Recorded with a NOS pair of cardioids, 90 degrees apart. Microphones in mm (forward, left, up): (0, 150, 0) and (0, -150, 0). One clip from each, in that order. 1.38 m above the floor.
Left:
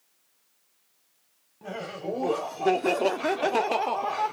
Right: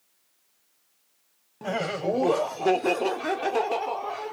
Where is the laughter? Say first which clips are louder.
Right 7 dB; 50° right, 0.9 m; by 4.3 s 35° left, 1.3 m.